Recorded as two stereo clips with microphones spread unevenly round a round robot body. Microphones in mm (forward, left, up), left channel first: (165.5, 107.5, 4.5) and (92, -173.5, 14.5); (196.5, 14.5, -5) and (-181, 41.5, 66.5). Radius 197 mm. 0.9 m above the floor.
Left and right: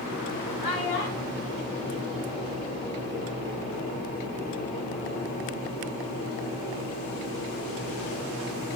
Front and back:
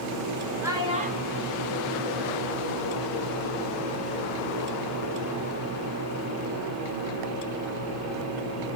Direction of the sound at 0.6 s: 90° left.